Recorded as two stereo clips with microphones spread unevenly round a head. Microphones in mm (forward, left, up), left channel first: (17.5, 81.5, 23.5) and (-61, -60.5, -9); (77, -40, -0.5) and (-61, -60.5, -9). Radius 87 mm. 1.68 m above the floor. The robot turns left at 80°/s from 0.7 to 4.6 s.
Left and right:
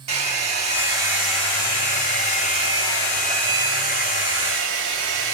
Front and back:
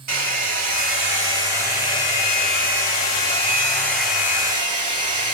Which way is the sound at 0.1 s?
175° right.